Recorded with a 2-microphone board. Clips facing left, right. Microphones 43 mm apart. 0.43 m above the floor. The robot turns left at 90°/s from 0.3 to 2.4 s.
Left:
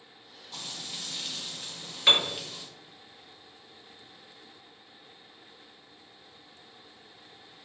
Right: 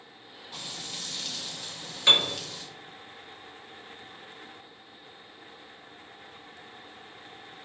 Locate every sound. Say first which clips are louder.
0.5 s frying: right 1 dB; 160° right, 1.0 m; by 2.6 s 30° left, 1.0 m
2.1 s a piano: right 1 dB; 10° left (ahead or behind), 0.7 m; by 2.4 s 35° left (ahead or behind), 0.7 m